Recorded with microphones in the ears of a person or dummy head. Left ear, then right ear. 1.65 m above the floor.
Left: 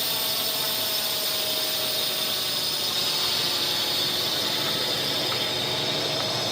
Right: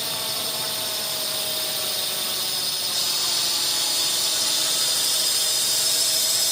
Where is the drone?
Centre (ahead or behind); by 6.5 s 65° right (ahead or behind).